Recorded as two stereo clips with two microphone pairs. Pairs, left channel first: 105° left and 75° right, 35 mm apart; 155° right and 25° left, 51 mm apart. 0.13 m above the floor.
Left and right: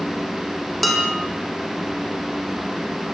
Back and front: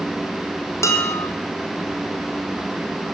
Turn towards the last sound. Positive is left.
turn(degrees=-165)